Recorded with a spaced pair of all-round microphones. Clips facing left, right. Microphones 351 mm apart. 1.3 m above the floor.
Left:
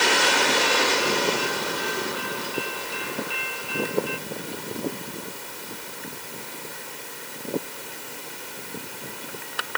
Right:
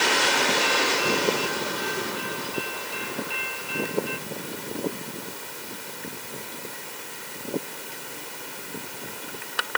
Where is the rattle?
No rattle in this recording.